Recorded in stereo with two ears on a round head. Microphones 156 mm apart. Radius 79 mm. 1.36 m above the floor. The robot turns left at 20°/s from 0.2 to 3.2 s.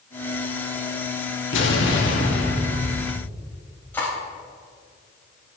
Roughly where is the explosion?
Left.